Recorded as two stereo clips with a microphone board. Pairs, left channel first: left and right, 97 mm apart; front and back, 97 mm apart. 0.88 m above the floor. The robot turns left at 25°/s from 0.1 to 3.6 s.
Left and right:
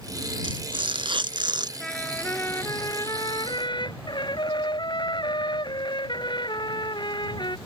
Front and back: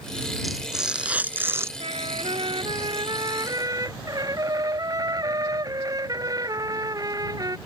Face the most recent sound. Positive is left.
turn(degrees=130)